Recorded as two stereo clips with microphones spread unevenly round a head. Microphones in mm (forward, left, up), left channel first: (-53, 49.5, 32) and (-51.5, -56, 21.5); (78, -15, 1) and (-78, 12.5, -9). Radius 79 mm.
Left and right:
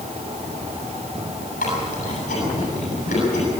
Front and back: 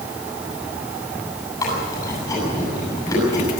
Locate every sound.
1.6 s chewing: 60° left, 8.5 m